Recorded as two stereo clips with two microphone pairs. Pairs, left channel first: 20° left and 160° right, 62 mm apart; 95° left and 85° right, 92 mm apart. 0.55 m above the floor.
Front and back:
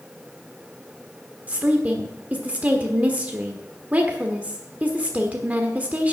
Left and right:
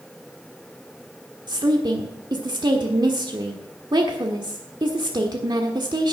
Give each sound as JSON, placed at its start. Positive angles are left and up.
{"t": 1.5, "sound": "a woman speaking", "azimuth_deg": -95, "distance_m": 1.3}